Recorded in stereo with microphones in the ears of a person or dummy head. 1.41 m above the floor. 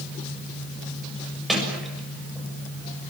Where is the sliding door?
Centre (ahead or behind), 7 m.